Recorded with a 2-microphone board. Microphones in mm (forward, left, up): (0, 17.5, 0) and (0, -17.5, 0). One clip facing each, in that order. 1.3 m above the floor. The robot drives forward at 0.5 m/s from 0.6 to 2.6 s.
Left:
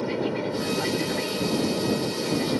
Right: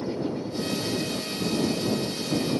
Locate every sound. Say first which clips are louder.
0.0 s an aircraft: left 3 dB; 55° left (ahead or behind)